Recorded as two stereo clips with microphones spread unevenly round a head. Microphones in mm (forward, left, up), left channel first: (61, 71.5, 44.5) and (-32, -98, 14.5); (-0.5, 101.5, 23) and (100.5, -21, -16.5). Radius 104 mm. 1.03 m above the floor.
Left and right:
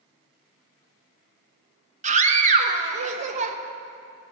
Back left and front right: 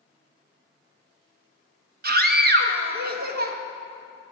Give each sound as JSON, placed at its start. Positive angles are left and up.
{"t": 2.0, "sound": "a scream", "azimuth_deg": -70, "distance_m": 1.3}